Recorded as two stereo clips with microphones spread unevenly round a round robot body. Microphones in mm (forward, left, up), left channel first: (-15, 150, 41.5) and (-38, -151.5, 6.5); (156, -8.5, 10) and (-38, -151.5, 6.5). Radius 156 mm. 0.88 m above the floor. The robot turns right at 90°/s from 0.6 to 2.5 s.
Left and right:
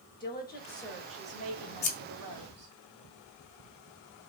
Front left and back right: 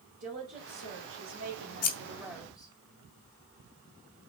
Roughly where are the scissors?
Ahead.